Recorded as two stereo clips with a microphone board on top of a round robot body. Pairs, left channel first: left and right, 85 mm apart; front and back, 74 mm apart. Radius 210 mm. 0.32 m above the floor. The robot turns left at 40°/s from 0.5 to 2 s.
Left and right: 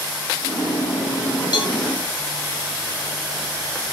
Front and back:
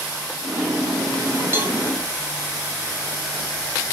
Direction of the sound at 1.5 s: 120° left.